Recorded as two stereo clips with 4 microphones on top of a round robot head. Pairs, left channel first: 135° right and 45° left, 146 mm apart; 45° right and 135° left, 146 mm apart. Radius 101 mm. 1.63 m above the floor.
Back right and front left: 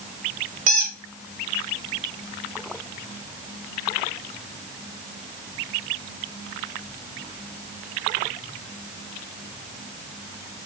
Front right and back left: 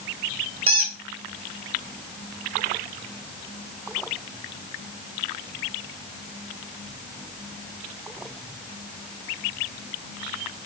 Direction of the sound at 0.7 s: 80° left.